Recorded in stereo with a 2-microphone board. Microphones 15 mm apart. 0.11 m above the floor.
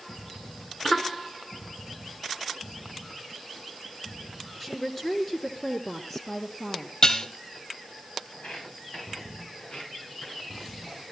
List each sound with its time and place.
4.6 s a woman speaking: 15° left (ahead or behind), 1.7 m; by 6.9 s 30° left (ahead or behind), 2 m
7.0 s dishes clattering: 55° left (ahead or behind), 1.7 m
8.3 s footsteps: 85° left, 8.5 m; by 11.0 s 70° left (ahead or behind), 7 m